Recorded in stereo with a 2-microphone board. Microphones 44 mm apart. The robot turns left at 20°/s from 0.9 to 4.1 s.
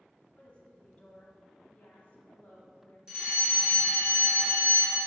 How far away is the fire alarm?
About 1.9 m.